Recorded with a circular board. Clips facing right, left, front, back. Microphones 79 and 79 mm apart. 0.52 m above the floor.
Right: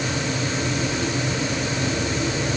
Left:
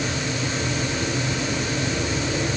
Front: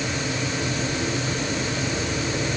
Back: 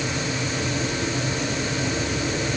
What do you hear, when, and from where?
Only background noise.